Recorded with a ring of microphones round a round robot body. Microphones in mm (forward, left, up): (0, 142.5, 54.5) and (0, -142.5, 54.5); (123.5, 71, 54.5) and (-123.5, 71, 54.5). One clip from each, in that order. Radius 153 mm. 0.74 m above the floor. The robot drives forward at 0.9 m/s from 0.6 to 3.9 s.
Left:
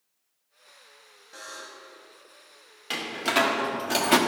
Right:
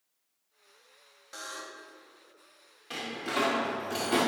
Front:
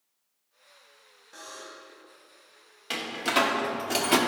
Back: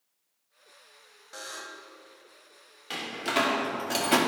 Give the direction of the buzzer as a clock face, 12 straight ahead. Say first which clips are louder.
Even, back 3 dB; 5 o'clock.